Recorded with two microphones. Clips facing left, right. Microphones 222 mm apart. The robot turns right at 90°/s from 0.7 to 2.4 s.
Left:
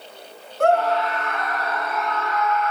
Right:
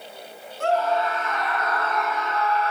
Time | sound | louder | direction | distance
0.6 | a scream | left 4 dB | 60° left | 6 m